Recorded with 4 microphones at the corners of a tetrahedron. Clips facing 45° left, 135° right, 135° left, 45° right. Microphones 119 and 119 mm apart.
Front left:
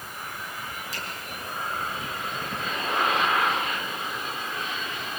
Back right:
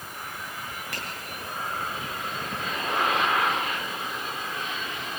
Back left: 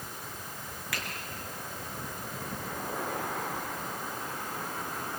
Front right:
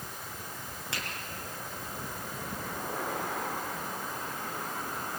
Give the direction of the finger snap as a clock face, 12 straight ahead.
4 o'clock.